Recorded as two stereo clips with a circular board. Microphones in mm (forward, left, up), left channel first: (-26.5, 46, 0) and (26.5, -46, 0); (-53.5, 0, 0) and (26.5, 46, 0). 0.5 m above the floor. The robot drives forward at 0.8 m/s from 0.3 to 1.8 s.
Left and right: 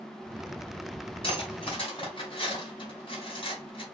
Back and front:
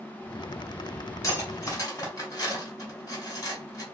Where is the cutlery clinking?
155° left, 1.6 m; by 3.8 s 160° left, 2 m.